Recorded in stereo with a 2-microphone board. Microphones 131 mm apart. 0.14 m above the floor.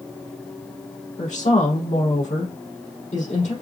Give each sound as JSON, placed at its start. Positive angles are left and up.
{"t": 1.2, "sound": "a woman speaking", "side_deg": 60, "distance_m": 4.0}